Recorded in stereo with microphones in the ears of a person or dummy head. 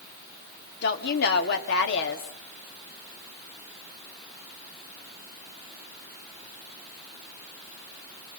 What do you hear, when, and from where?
0.8 s a woman speaking: 65° left (ahead or behind), 2 m